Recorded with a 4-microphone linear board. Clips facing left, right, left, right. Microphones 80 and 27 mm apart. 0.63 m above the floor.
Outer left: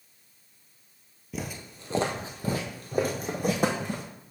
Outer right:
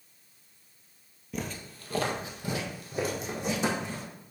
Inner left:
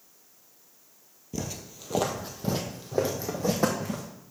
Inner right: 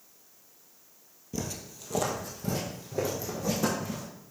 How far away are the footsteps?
About 1.0 m.